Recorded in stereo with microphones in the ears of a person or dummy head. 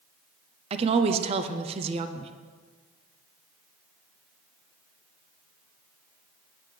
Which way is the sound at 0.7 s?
30° right (ahead or behind).